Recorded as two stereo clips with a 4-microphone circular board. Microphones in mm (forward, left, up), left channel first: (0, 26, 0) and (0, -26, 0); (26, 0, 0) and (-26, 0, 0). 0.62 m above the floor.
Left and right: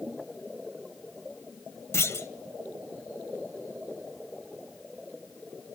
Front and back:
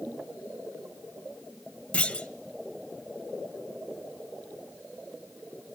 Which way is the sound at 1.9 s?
65° left.